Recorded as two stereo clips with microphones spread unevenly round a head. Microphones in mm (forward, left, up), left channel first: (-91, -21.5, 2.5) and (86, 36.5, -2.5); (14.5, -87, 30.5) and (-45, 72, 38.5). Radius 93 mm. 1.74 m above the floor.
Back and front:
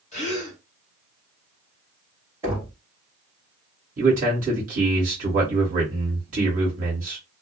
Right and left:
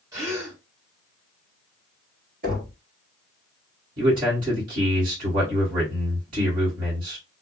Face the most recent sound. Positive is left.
turn(degrees=65)